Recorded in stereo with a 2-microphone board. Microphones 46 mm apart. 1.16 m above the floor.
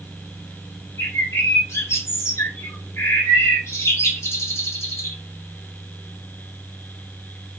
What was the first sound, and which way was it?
A bird, 75° left (ahead or behind).